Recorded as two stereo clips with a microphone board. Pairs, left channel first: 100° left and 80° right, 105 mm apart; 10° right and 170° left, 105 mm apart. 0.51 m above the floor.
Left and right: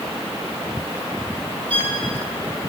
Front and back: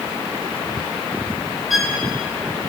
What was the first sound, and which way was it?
A violin, 100° right.